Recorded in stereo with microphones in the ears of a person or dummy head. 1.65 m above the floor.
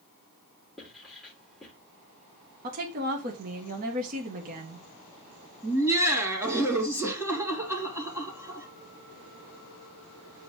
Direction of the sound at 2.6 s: 50° right (ahead or behind).